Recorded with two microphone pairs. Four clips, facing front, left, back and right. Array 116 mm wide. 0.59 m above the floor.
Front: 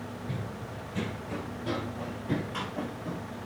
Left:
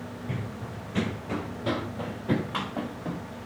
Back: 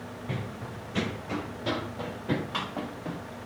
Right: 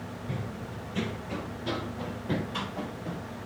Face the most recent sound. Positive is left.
turn(degrees=120)